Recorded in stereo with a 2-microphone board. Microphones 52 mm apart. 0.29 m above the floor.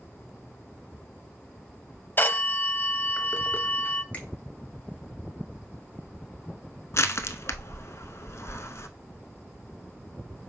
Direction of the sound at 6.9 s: 65° left (ahead or behind).